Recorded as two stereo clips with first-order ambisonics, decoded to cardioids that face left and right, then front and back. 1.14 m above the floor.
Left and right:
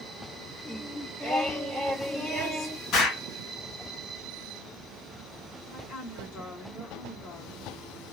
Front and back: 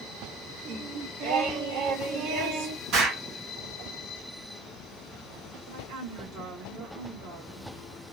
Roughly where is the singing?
Behind.